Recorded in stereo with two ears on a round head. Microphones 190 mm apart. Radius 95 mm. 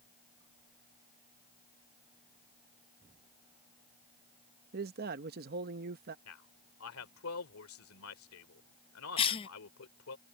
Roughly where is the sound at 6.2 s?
Left.